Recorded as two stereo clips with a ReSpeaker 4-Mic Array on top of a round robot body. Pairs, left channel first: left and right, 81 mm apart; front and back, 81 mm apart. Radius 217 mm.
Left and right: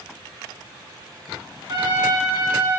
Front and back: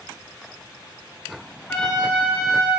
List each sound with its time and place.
1.7 s a trumpet: 80° right, 2 m